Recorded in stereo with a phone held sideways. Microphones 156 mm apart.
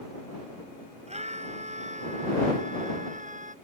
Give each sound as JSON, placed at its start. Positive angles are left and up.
{"t": 1.1, "sound": "a scream", "side_deg": -45}